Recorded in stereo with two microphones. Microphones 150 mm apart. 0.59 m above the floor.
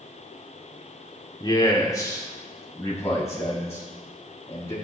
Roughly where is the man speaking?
Left.